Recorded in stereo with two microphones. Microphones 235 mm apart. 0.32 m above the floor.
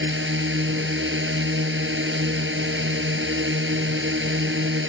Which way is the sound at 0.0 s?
55° right (ahead or behind).